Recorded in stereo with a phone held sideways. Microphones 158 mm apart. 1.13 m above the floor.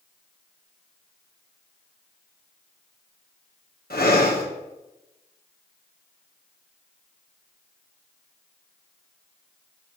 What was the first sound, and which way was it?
Breathing, 70° left (ahead or behind).